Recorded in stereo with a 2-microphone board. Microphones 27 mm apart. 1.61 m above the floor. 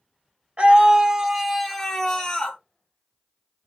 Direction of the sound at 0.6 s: 45° right (ahead or behind).